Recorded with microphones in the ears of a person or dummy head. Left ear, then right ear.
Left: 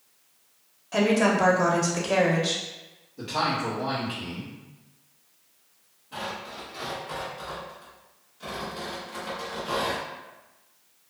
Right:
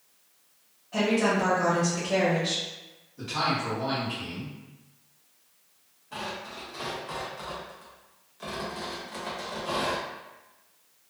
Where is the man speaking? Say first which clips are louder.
Left 1 dB; 5° left (ahead or behind), 1.3 m.